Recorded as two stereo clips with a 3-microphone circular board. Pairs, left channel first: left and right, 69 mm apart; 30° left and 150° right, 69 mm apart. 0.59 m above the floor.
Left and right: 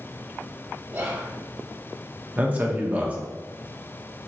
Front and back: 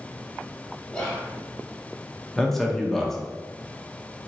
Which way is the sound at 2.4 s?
50° right.